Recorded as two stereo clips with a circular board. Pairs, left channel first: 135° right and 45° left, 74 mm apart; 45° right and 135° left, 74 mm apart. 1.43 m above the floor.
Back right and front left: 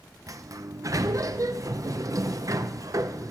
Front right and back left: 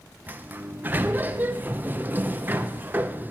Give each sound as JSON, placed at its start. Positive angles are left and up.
{"t": 0.3, "sound": "a sliding door", "azimuth_deg": 75, "distance_m": 0.6}